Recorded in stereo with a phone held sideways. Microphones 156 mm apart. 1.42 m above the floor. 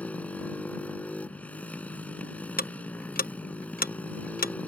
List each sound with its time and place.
0.0 s a motorcycle: 10° left (ahead or behind)
2.6 s ticking: 70° left (ahead or behind)